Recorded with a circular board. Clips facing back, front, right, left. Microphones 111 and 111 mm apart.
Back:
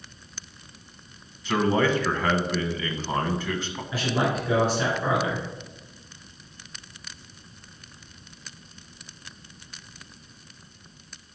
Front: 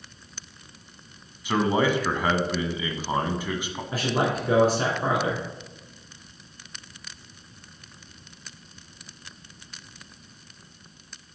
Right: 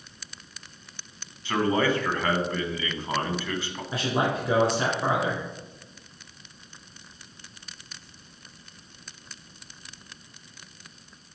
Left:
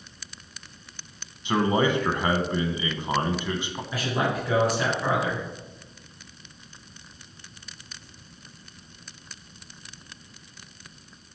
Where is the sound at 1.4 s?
55° left, 1.1 m.